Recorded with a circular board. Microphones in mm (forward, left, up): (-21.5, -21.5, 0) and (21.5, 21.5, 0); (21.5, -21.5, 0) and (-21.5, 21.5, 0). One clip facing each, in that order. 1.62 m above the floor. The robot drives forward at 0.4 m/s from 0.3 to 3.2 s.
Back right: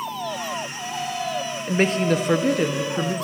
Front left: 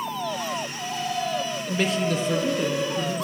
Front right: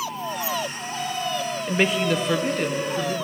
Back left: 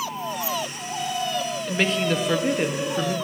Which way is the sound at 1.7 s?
105° right.